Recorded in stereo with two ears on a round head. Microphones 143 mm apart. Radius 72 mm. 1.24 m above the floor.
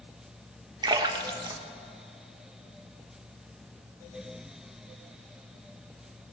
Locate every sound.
0.8 s a splash: 30° right (ahead or behind), 1.0 m